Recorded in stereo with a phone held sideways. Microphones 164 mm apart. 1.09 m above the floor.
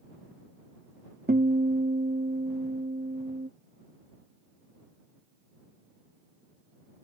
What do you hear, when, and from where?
1.3 s a guitar: 70° right (ahead or behind)